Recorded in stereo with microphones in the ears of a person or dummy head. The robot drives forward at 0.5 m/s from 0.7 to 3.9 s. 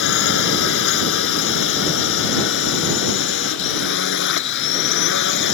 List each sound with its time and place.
0.0 s a drone: 70° left (ahead or behind); by 5.5 s 65° left (ahead or behind)